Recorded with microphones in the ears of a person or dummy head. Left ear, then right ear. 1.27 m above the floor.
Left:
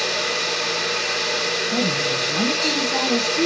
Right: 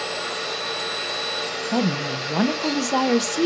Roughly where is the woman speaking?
Right.